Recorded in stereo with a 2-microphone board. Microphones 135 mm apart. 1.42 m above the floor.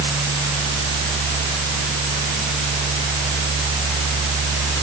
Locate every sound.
Only background noise.